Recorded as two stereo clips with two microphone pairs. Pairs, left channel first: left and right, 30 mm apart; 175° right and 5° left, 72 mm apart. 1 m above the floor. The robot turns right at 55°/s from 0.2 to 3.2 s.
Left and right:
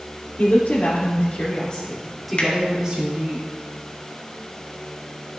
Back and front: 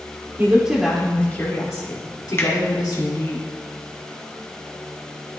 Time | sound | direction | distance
0.4 | a woman speaking | 65° left | 2.5 m
2.4 | a finger snap | 130° left | 1.5 m